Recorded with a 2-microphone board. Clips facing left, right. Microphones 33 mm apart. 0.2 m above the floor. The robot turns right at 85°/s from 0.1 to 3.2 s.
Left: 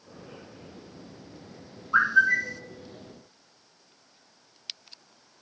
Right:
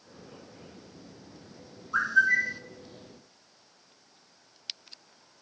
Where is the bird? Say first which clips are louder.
Left 2 dB; 150° left, 0.7 m; by 2.6 s 155° right, 0.7 m.